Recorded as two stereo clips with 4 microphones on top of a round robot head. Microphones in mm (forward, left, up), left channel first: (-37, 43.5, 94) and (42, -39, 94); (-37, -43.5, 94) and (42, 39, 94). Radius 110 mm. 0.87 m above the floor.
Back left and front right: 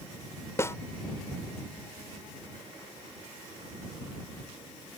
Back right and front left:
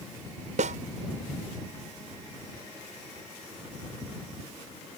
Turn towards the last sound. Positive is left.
turn(degrees=65)